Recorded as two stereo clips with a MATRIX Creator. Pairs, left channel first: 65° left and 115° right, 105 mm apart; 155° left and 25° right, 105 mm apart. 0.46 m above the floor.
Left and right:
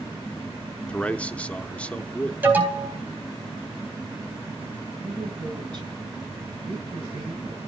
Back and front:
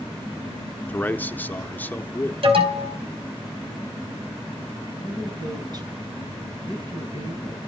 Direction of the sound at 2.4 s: 40° right.